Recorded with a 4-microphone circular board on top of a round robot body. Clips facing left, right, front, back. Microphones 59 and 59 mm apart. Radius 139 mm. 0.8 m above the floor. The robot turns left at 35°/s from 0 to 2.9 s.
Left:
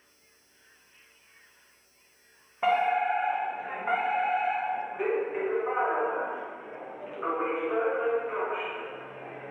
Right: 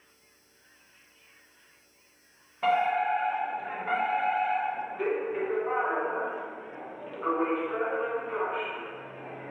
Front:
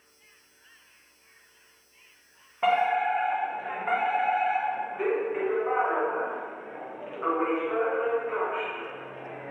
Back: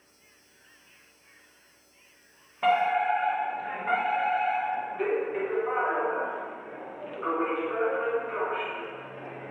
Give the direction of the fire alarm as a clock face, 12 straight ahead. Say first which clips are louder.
Left 1 dB, even; 10 o'clock.